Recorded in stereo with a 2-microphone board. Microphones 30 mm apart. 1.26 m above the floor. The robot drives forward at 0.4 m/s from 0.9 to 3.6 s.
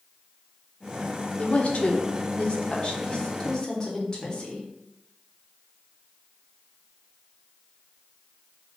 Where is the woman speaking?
50° left (ahead or behind), 0.7 m; by 4.7 s 25° left (ahead or behind), 1.2 m.